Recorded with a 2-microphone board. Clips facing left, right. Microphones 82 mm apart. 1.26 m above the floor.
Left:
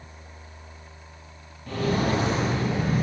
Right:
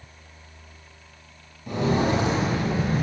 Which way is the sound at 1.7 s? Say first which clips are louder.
Right 2 dB; 20° right (ahead or behind).